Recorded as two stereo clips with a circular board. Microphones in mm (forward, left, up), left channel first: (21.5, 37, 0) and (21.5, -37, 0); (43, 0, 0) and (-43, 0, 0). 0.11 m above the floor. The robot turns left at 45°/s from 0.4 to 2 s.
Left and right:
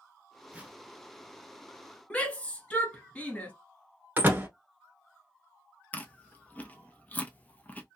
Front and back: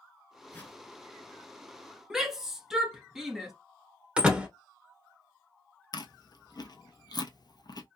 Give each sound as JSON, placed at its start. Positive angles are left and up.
{"t": 0.5, "sound": "a whoosh", "azimuth_deg": -35, "distance_m": 0.8}
{"t": 2.1, "sound": "a shout", "azimuth_deg": 105, "distance_m": 1.1}
{"t": 4.2, "sound": "a door slam", "azimuth_deg": -115, "distance_m": 0.9}
{"t": 5.9, "sound": "chewing", "azimuth_deg": 25, "distance_m": 0.6}